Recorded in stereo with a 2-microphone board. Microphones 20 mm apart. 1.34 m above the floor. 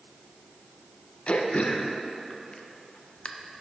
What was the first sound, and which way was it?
Throat clearing, 55° left (ahead or behind).